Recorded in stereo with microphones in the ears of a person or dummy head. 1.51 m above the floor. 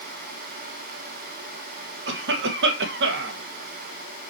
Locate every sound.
2.1 s a cough: 65° right (ahead or behind), 1.5 m